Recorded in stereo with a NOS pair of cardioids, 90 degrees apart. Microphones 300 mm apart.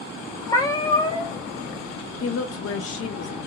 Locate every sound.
0.5 s a cat meowing: 15° left, 0.8 m
2.2 s a woman speaking: 50° left, 0.8 m